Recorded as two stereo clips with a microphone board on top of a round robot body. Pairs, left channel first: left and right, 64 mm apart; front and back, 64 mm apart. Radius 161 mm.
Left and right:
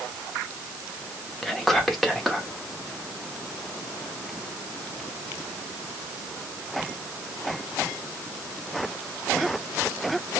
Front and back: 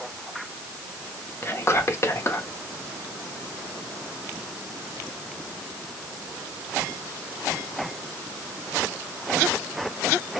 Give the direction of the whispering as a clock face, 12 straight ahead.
12 o'clock.